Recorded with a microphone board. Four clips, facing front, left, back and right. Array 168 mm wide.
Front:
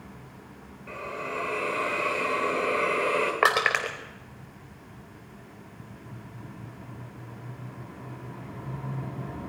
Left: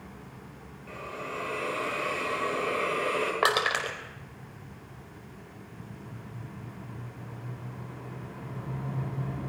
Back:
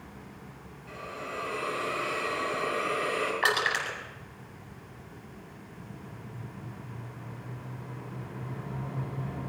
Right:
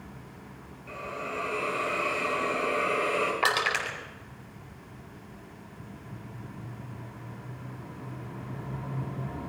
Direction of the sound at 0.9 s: 10° left.